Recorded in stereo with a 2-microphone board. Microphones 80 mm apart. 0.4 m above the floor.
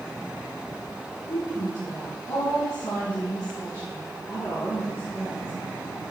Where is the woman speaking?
50° left (ahead or behind), 3.5 m.